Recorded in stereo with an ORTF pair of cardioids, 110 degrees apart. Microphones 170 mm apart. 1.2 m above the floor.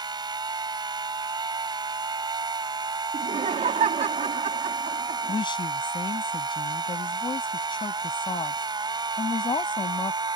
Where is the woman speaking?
30° left.